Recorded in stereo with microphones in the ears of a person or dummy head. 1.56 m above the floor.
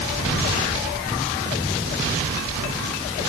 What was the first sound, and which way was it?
Only background noise.